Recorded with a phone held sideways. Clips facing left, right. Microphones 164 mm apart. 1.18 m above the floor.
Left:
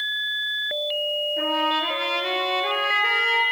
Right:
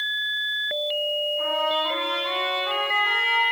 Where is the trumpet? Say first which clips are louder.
Left 1 dB; 75° left (ahead or behind), 4.5 m.